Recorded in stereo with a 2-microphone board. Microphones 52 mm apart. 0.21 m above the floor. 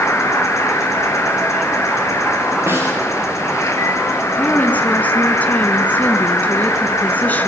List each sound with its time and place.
0.0 s an insect: 70° left (ahead or behind), 3 m
2.7 s a snare drum: 65° right (ahead or behind), 9.5 m
4.2 s a woman speaking: 30° left (ahead or behind), 1.8 m